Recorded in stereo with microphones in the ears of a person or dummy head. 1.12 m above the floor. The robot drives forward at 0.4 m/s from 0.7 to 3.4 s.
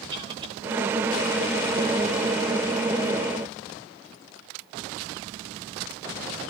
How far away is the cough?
About 4 m.